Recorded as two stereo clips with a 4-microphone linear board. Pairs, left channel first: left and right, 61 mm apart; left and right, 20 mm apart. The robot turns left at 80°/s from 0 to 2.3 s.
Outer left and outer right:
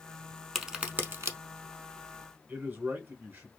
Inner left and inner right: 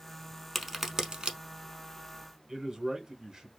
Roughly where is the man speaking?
Right.